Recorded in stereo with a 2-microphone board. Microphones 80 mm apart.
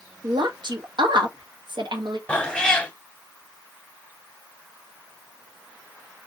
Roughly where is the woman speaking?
Right.